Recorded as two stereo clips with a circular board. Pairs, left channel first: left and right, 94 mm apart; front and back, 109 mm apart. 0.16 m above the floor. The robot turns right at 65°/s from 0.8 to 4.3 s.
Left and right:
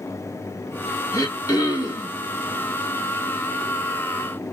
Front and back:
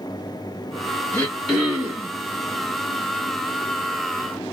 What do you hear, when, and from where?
1.1 s throat clearing: 65° left, 2 m; by 2.1 s 130° left, 2 m